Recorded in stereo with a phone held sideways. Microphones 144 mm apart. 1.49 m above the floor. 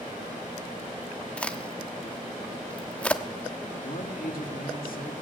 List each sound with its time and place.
1.4 s a crack: 10° left (ahead or behind), 1.1 m
3.8 s a man speaking: 80° left, 3 m